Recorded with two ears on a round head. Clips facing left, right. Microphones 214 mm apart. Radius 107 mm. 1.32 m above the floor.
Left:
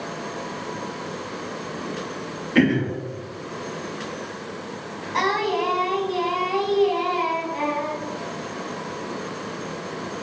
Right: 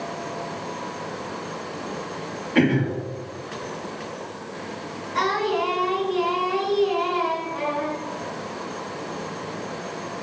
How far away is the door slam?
I don't hear a door slam.